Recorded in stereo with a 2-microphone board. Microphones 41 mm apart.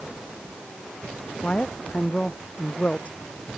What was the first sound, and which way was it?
A woman speaking, 30° left (ahead or behind).